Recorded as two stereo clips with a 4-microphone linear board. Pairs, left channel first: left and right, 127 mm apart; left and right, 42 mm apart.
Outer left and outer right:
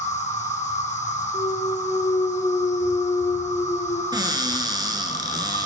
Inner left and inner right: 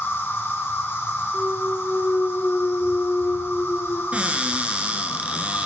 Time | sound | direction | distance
0.0 | an insect | 70° left (ahead or behind) | 1.5 m
1.3 | a clunk | 60° left (ahead or behind) | 1.7 m
4.1 | a cupboard door | 35° right (ahead or behind) | 1.0 m